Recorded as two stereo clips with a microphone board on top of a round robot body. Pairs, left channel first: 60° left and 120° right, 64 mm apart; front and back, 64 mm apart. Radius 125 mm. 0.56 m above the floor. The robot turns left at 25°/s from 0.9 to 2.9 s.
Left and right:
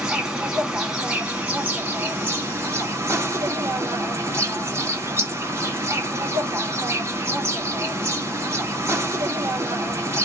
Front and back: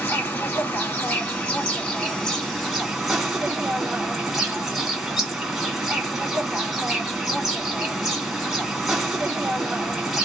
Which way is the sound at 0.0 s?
50° right.